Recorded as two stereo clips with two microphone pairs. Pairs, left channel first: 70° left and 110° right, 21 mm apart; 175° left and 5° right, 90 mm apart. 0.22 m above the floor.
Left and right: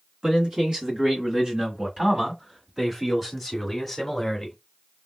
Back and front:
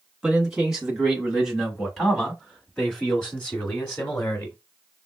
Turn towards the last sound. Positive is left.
turn(degrees=150)